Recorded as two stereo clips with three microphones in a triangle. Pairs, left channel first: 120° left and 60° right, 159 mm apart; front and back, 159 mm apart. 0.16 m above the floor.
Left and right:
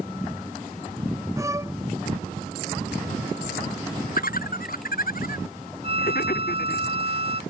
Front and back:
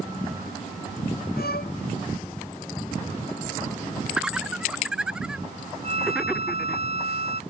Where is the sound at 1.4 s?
10° left.